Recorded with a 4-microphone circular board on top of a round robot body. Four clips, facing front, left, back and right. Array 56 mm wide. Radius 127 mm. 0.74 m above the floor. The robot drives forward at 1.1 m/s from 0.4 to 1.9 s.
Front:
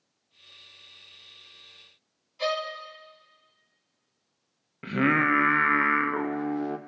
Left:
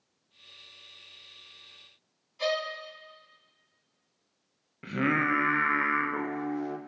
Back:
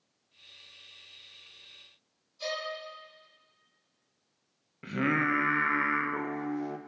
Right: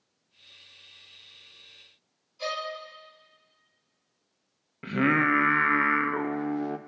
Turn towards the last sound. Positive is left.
turn(degrees=-30)